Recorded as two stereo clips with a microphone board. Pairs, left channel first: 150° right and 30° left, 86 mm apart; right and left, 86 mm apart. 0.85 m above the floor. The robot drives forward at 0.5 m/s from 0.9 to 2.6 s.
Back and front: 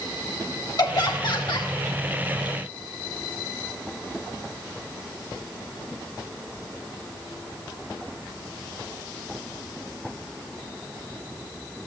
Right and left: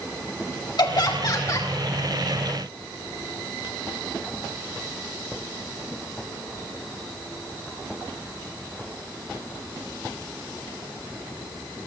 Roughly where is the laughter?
Behind right.